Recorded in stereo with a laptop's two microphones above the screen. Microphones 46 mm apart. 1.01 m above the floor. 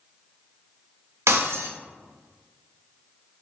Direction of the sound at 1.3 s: 75° right (ahead or behind).